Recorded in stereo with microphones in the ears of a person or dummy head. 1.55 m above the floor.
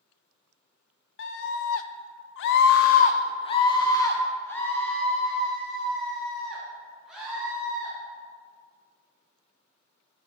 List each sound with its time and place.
1.2 s a scream: 65° left (ahead or behind), 1.2 m; by 7.9 s 5° right (ahead or behind), 4 m